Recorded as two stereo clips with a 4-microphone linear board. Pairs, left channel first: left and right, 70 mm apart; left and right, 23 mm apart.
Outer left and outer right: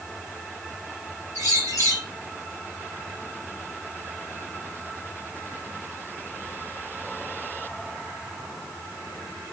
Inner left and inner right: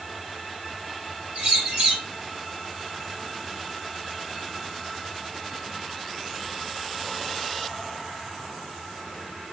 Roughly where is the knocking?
I don't hear knocking.